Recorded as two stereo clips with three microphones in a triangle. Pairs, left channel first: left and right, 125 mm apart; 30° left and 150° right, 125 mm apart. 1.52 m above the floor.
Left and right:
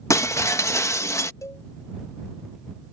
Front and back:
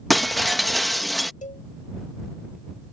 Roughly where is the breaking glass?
Behind left.